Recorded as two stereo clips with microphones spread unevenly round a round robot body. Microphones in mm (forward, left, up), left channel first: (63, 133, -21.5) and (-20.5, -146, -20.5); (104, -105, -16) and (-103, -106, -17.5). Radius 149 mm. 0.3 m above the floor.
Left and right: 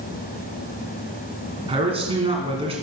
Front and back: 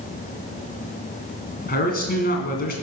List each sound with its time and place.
1.7 s a man speaking: 35° right, 2.5 m